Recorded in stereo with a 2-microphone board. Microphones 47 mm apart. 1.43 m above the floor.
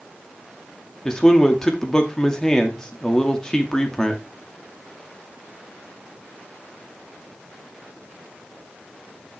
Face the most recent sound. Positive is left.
turn(degrees=15)  # may be behind; listen again after turning